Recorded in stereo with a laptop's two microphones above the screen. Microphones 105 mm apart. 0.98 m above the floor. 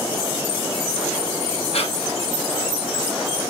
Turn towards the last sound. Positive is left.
turn(degrees=75)  # may be behind; listen again after turning